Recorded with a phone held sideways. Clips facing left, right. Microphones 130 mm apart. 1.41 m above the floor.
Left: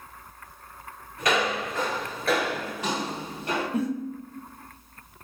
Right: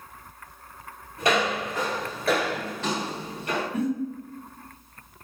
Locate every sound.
1.2 s footsteps: 30° right (ahead or behind), 1.6 m; by 3.6 s 30° left (ahead or behind), 1.8 m
3.7 s a giggle: 35° left (ahead or behind), 1.3 m